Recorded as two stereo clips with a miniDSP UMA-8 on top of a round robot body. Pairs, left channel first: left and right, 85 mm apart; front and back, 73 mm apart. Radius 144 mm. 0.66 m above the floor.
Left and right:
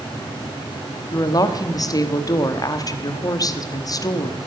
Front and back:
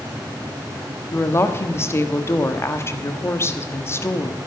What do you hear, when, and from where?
1.1 s a woman speaking: 50° left, 1.4 m